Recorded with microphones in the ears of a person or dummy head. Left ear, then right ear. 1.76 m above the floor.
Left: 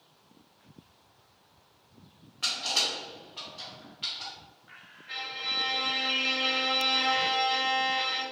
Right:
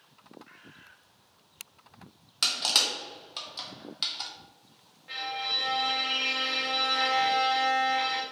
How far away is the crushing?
About 0.8 m.